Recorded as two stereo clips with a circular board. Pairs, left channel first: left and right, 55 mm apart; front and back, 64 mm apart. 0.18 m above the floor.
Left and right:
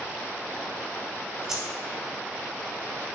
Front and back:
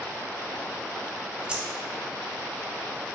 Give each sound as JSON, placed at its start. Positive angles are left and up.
{"t": 1.5, "sound": "keys jangling", "azimuth_deg": -150, "distance_m": 0.7}